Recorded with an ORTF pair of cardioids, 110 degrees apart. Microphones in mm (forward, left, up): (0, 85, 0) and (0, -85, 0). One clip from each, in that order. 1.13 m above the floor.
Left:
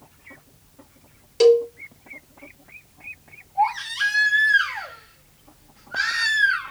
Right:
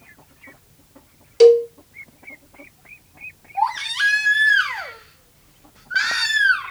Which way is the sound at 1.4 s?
5° right.